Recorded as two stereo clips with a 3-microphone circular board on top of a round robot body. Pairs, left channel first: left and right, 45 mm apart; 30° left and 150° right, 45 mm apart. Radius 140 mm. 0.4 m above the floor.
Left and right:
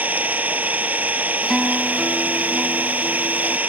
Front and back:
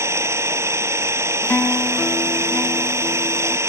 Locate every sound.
0.0 s an engine running: 145° right
1.4 s a guitar: straight ahead